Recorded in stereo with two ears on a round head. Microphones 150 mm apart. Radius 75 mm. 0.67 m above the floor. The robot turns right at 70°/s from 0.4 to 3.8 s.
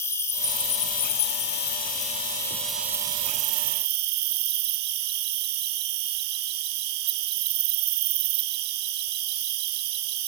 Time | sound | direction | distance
0.0 | an insect | 20° left | 1.4 m